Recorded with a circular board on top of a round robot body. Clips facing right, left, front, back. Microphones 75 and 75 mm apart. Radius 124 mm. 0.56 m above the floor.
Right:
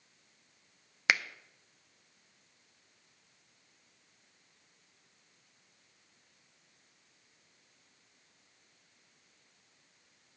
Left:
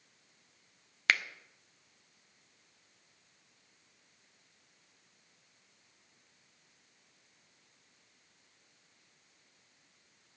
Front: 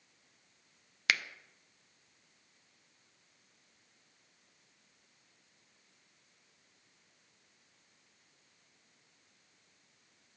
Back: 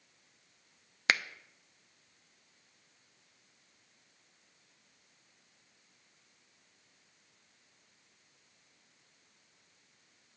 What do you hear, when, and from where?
1.1 s a finger snap: 155° right, 0.7 m